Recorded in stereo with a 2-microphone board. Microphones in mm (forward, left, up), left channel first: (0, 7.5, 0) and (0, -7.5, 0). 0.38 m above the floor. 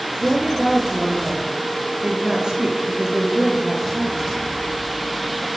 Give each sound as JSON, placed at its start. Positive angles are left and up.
{"t": 0.2, "sound": "a woman speaking", "side_deg": -60, "distance_m": 8.0}